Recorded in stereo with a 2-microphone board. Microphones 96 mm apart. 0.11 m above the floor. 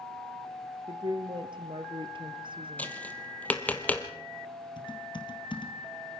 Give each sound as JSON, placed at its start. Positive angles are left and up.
{"t": 0.9, "sound": "a woman speaking", "side_deg": -55, "distance_m": 2.0}
{"t": 2.8, "sound": "tapping", "side_deg": 15, "distance_m": 1.6}
{"t": 4.8, "sound": "typing on a keyboard", "side_deg": 50, "distance_m": 2.0}